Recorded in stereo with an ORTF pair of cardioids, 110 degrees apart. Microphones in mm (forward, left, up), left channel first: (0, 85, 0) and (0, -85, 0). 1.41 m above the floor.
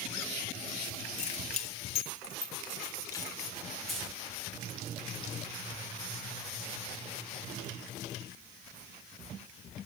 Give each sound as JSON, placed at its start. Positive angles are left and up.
{"t": 1.2, "sound": "keys jangling", "azimuth_deg": 45, "distance_m": 1.5}
{"t": 3.9, "sound": "keys jangling", "azimuth_deg": 0, "distance_m": 7.5}